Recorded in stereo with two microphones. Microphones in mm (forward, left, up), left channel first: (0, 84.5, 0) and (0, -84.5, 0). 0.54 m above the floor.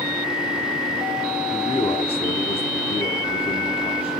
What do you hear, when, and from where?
1.5 s a man speaking: 35° left (ahead or behind), 0.9 m